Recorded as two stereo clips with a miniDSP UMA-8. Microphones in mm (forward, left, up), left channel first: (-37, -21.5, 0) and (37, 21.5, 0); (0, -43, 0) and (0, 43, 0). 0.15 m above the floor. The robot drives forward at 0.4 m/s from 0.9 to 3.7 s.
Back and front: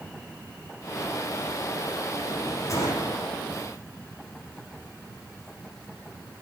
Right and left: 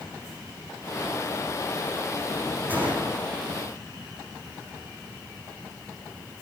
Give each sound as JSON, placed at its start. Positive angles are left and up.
{"t": 2.7, "sound": "a gunshot", "azimuth_deg": 160, "distance_m": 9.0}